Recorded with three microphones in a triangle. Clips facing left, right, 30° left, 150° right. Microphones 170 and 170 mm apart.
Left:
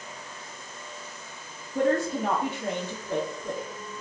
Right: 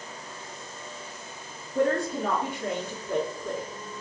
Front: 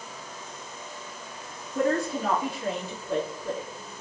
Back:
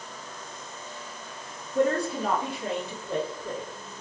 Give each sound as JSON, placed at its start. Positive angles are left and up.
{"t": 1.8, "sound": "a woman speaking", "azimuth_deg": 145, "distance_m": 1.5}